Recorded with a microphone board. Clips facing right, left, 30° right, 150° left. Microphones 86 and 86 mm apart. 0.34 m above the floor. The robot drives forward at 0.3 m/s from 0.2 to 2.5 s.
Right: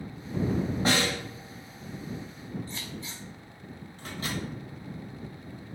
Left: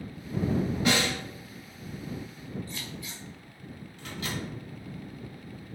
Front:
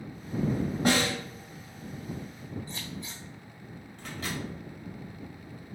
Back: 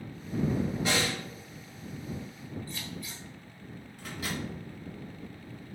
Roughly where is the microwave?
Behind right.